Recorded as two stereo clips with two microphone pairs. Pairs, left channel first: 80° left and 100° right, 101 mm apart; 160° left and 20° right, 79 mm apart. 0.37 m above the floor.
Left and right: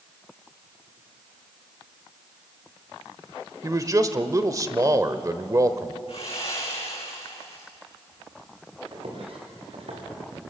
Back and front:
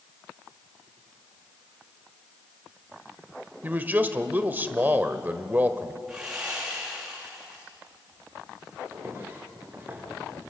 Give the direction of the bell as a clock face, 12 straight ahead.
No bell in this recording.